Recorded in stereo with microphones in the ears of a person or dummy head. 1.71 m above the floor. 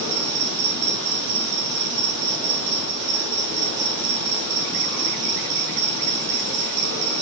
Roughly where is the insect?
Right.